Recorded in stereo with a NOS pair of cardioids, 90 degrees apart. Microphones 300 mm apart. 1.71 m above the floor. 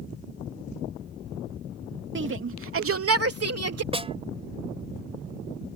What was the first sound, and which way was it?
A shout, 40° right.